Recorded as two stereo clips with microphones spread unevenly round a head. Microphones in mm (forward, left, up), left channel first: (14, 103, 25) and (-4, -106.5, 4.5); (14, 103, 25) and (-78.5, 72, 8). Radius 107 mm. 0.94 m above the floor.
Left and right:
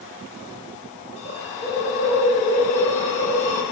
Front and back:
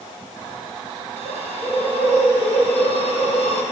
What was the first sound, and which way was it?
A hiss, 25° left.